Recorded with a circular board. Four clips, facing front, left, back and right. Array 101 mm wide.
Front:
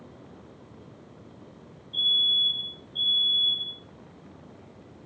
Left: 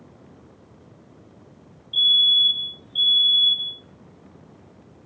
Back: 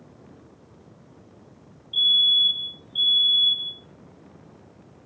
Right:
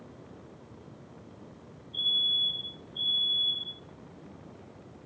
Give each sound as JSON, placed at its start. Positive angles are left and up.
{"t": 1.9, "sound": "a fire alarm", "azimuth_deg": 120, "distance_m": 3.0}